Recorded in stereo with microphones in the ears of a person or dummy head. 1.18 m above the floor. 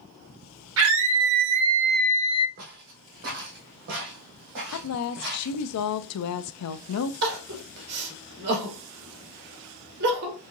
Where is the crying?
65° right (ahead or behind), 2 m.